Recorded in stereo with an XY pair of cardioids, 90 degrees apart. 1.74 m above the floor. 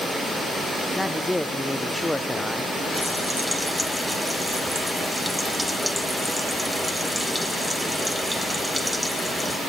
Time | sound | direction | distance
1.0 | a man speaking | 10° left | 0.6 m
2.9 | frying | 5° right | 1.8 m